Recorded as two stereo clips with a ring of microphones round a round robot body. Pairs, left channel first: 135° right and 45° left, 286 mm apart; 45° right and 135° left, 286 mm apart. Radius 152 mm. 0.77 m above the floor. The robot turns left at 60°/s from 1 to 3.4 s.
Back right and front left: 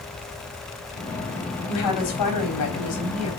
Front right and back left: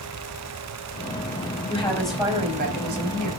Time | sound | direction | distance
1.7 | a woman speaking | 110° right | 4.5 m